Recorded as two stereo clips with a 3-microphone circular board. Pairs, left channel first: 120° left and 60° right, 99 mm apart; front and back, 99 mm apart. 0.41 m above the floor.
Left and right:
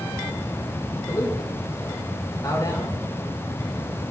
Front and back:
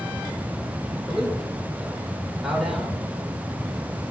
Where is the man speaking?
100° left, 0.9 m.